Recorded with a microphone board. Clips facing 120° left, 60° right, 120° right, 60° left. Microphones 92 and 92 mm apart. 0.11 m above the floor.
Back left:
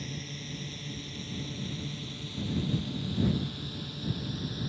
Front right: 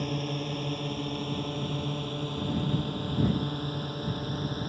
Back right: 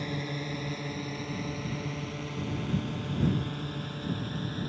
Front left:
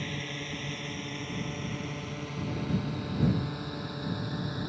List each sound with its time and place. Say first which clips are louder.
0.0 s a drone: front right 9 dB, back right 3 dB; 45° right; by 4.7 s 15° right